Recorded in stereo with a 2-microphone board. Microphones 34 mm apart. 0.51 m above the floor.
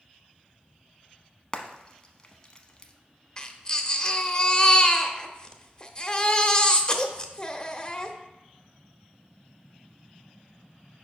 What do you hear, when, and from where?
1.5 s frying: 25° left (ahead or behind), 0.7 m
3.4 s a baby crying: 25° left (ahead or behind), 0.6 m